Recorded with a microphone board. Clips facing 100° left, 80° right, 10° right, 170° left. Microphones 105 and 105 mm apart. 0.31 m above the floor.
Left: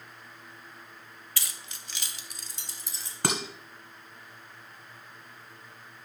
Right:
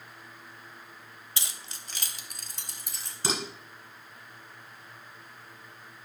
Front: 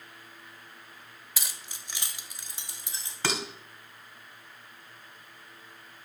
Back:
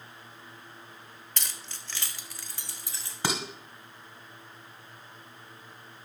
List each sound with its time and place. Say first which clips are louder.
1.4 s keys jangling: right 1 dB, even; 85° right, 0.8 m; by 3.1 s 75° right, 1.8 m
3.2 s dishes clattering: left 2 dB, back 1 dB; 95° left, 1.9 m